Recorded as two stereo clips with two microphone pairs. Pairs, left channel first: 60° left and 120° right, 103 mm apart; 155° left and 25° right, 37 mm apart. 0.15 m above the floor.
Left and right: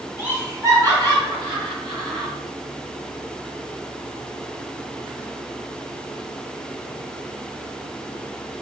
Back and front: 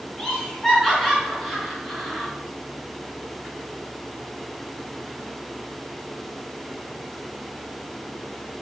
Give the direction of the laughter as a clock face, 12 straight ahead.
5 o'clock.